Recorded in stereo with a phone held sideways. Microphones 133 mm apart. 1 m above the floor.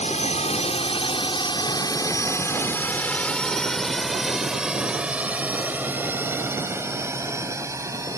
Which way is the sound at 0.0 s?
55° left (ahead or behind).